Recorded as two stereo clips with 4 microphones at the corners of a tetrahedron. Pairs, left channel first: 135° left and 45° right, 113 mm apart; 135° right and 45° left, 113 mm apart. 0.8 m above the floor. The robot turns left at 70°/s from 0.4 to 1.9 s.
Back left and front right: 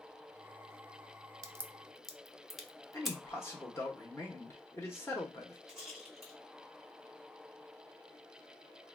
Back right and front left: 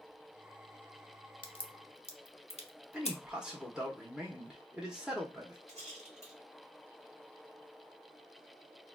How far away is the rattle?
About 1.3 m.